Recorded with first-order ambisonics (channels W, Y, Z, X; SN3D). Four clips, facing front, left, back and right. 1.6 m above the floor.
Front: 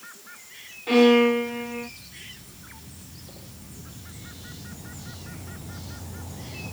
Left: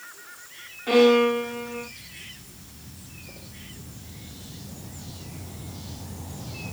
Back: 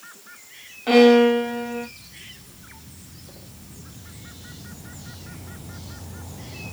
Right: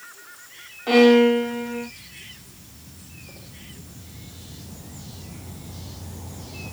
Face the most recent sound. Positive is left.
turn(degrees=-165)